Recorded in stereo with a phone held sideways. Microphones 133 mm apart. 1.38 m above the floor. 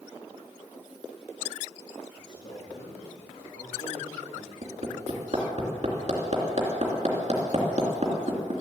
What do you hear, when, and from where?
2.2 s a man speaking: 65° left (ahead or behind), 2.5 m
4.6 s hammering: 50° right (ahead or behind), 3 m